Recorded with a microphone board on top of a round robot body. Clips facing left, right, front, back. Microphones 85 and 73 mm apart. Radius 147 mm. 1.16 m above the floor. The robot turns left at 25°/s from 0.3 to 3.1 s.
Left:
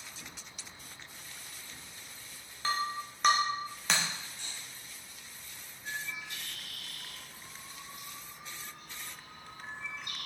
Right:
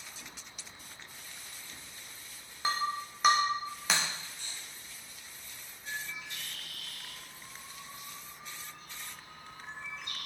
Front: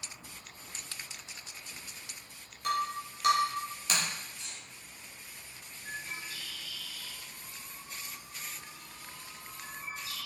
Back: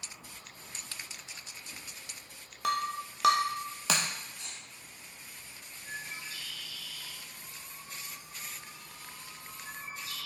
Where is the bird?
45° left, 2.5 m.